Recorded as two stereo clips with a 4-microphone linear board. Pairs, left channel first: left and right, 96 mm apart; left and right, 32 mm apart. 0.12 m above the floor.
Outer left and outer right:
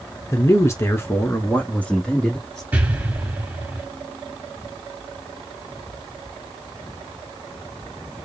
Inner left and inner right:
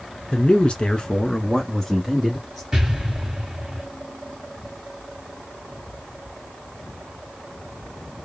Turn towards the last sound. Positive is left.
turn(degrees=-15)  # may be behind; listen again after turning